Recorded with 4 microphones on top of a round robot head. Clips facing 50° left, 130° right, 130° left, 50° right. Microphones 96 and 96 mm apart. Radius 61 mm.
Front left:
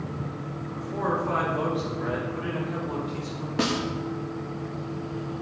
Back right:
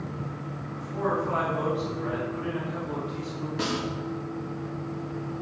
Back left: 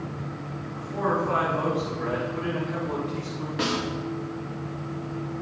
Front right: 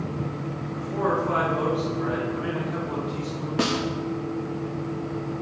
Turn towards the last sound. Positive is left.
turn(degrees=5)